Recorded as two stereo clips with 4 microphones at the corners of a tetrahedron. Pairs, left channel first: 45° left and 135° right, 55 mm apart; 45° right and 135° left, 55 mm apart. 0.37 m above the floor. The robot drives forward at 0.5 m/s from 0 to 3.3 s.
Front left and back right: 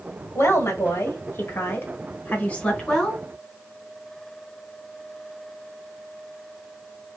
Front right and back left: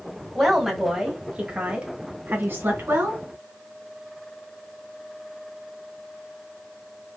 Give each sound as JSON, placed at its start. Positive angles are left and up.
{"t": 0.3, "sound": "a woman speaking", "azimuth_deg": 45, "distance_m": 1.5}